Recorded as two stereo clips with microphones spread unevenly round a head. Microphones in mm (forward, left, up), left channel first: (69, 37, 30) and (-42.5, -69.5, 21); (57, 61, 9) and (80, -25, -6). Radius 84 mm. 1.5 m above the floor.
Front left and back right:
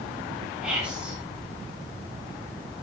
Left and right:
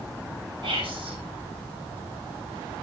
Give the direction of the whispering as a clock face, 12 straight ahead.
2 o'clock.